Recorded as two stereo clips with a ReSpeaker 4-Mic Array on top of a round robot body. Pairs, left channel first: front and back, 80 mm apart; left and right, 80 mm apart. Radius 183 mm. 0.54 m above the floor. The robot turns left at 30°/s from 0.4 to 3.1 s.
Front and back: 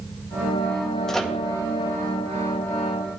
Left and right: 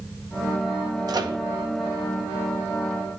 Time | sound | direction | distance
1.1 | a microwave | 80° right | 1.6 m